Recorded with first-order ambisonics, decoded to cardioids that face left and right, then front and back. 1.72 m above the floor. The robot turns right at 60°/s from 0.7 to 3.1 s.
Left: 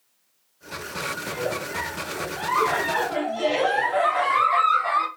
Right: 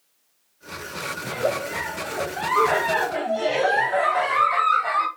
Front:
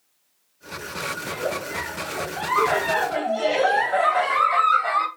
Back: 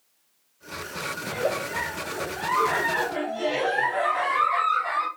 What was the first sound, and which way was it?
A giggle, 135° right.